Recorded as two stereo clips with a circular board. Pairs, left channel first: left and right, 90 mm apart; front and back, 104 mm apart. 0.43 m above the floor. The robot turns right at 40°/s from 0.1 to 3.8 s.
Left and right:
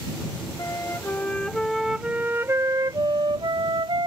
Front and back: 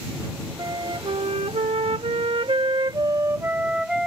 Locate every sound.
0.6 s a flute: 135° left; by 4.1 s 95° right